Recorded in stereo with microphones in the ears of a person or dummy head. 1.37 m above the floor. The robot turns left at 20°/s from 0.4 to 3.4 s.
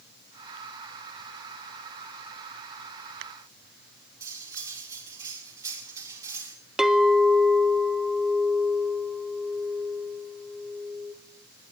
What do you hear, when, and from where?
4.2 s cutlery clinking: 25° right (ahead or behind), 2 m
6.8 s a clink: 5° right (ahead or behind), 0.7 m